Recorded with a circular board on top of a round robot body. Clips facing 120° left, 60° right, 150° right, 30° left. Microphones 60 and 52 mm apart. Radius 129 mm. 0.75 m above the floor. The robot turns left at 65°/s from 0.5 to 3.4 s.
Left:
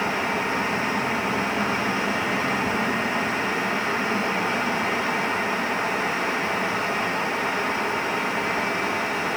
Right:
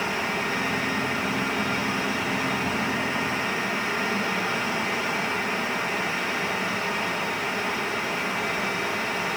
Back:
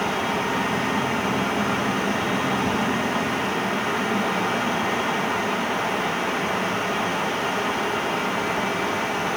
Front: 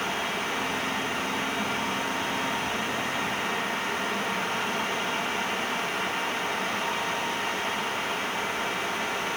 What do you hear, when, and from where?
Only background noise.